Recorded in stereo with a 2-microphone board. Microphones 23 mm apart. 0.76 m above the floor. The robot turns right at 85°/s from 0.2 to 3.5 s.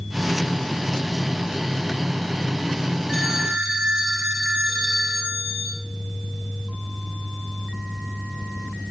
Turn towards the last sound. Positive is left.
turn(degrees=-135)